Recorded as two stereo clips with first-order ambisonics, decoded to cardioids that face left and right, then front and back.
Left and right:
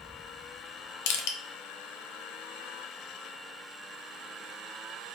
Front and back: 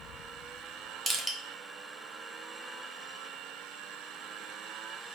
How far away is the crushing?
About 0.5 m.